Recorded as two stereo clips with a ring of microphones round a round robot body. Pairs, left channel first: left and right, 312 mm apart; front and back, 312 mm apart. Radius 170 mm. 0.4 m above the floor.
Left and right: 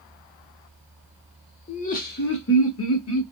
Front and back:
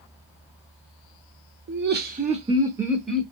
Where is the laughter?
150° left, 1.0 m; by 3.2 s 85° left, 1.1 m.